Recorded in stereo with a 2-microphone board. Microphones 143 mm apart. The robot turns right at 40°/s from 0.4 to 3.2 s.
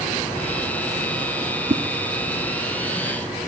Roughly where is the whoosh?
Right.